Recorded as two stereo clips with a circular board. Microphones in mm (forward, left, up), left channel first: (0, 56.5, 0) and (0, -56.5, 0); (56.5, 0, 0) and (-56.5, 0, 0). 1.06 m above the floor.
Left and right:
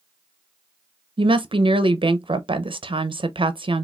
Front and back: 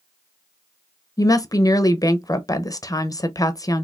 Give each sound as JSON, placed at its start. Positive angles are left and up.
{"t": 1.2, "sound": "a woman speaking", "azimuth_deg": -55, "distance_m": 0.5}